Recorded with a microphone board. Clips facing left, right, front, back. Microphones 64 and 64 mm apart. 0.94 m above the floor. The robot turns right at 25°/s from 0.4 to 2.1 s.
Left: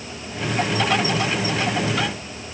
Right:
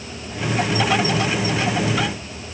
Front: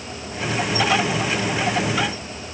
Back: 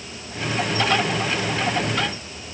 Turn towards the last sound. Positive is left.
No sound to turn to.